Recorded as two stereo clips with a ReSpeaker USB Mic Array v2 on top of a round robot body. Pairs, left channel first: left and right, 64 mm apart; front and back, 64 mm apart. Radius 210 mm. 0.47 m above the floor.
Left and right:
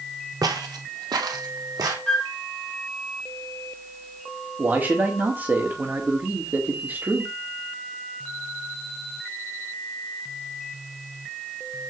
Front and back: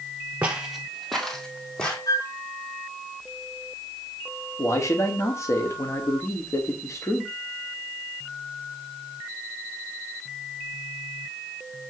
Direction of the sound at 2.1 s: 10° left.